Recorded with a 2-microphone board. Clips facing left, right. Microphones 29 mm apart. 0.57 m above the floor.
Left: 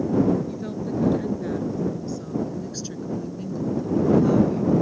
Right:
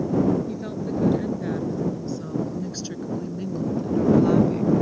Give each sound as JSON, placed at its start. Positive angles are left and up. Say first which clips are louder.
{"t": 0.5, "sound": "a woman speaking", "louder": "even", "side_deg": -15}